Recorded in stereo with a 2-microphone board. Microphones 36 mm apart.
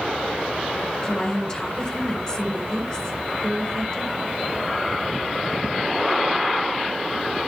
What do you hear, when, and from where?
1.0 s a woman speaking: 20° left (ahead or behind), 3 m